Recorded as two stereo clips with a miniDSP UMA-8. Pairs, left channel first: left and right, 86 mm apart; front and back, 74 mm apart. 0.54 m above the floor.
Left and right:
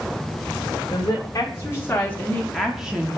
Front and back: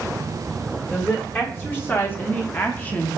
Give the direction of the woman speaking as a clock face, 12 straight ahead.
10 o'clock.